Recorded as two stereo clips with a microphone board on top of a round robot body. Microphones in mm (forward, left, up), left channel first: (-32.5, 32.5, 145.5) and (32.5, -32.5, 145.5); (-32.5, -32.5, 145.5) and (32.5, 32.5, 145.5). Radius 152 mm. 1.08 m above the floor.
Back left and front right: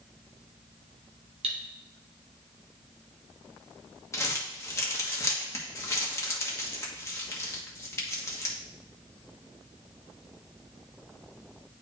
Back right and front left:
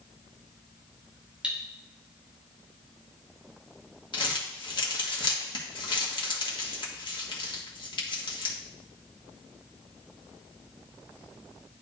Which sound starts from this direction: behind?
Crumpling, at 4.1 s.